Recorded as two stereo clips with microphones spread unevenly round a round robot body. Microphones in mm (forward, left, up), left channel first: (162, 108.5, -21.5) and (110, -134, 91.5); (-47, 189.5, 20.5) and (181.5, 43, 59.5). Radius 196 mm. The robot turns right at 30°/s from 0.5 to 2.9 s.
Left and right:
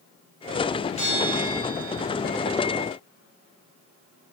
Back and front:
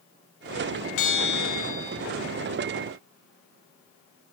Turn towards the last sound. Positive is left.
turn(degrees=-155)